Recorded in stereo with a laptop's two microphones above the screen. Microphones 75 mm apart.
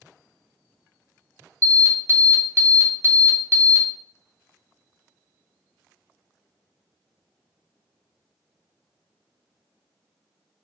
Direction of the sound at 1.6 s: 30° right (ahead or behind).